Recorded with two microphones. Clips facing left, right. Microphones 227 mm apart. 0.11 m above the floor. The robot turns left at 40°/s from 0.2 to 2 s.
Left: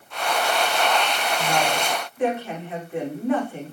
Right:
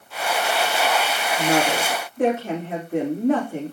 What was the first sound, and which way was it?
A woman speaking, 65° right (ahead or behind).